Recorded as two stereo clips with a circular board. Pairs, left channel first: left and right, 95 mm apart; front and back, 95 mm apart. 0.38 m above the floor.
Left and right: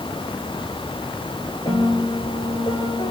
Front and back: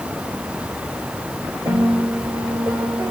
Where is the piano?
140° left, 9.5 m.